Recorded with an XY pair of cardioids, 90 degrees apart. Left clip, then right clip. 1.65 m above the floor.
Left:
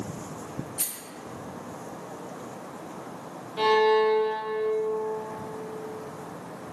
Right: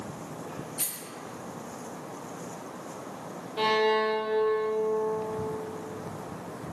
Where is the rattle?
25° left, 0.6 m.